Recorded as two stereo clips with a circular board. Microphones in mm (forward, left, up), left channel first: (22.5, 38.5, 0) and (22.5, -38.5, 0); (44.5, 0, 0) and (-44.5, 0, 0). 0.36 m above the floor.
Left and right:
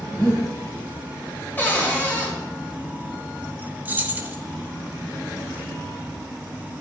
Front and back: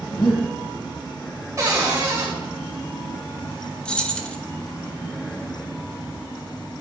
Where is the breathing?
Straight ahead, 2.5 m.